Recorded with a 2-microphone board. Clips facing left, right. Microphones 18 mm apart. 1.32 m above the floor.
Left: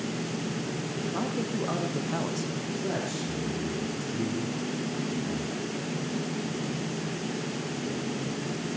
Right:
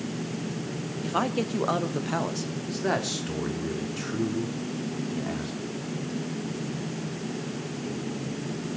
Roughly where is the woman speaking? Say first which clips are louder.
Right 6 dB; right.